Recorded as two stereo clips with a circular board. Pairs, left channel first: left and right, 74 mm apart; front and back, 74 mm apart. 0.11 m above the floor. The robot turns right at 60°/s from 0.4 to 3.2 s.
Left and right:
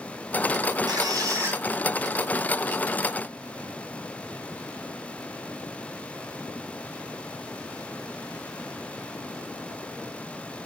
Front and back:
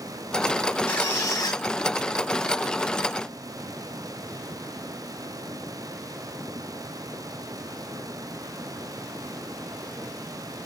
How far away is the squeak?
About 5 m.